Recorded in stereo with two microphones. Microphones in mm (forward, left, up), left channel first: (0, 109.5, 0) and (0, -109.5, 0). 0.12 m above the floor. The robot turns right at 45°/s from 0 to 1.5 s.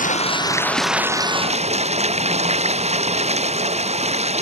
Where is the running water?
140° left; by 4.4 s 150° right.